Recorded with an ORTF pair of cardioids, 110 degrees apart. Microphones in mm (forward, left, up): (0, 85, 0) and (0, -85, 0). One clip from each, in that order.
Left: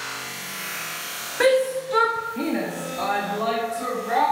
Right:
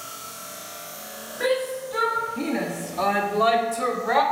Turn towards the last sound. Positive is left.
turn(degrees=-45)